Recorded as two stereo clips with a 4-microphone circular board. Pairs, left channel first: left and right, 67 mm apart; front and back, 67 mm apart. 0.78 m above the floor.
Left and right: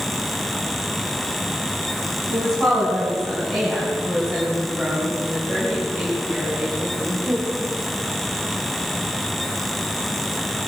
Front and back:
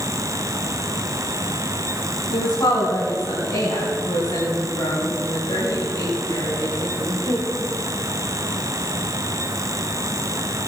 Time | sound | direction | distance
2.3 | a woman speaking | 15° left | 5.5 m